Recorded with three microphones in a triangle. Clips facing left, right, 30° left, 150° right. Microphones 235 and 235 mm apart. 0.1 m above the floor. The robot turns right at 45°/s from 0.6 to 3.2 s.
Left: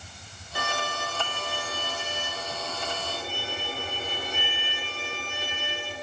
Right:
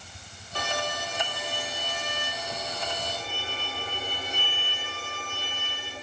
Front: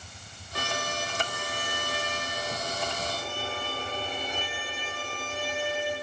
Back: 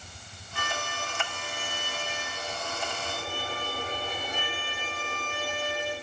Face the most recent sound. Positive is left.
turn(degrees=130)